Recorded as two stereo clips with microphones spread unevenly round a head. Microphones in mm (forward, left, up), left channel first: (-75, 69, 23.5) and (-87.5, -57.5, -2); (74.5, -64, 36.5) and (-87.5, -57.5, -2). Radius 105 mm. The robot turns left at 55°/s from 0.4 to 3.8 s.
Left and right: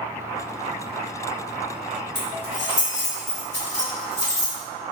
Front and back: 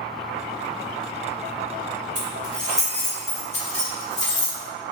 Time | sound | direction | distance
2.1 | keys jangling | 120° left | 1.8 m